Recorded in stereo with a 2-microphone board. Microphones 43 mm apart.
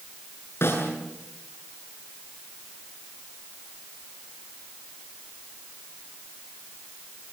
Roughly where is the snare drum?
Left.